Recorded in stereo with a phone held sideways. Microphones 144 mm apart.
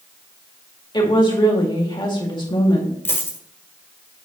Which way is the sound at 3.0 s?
20° left (ahead or behind).